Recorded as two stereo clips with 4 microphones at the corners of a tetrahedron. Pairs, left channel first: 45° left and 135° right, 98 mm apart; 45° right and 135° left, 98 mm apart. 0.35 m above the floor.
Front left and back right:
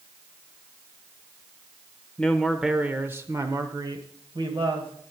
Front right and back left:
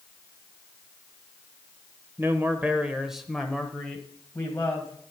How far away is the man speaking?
About 0.8 m.